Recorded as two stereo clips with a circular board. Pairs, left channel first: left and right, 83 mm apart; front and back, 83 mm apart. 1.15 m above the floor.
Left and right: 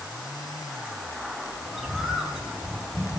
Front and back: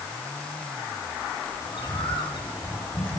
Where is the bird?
Straight ahead, 3 m.